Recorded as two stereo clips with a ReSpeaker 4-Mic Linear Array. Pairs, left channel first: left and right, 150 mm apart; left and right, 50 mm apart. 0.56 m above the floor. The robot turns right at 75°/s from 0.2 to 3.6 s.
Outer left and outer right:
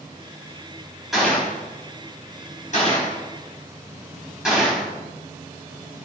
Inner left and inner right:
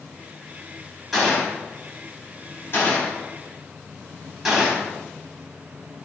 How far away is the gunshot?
About 3.5 m.